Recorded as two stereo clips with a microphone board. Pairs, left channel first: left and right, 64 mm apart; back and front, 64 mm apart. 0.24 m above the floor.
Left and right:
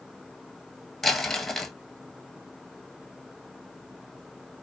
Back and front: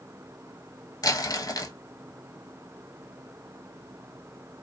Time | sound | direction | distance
1.0 | crumpling | 175° left | 0.8 m